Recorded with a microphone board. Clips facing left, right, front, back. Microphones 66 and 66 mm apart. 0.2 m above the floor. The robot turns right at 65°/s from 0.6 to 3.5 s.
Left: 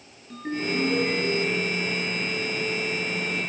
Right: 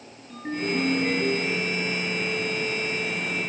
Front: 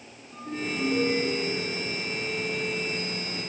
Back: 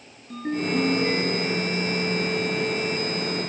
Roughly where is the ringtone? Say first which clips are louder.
Even, back 7 dB; behind.